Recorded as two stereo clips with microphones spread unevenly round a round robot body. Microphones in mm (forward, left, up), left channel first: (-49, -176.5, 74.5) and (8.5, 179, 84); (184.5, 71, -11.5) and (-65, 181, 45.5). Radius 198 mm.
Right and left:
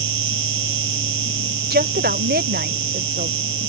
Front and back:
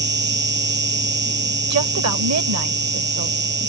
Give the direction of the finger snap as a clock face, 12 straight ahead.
No finger snap in this recording.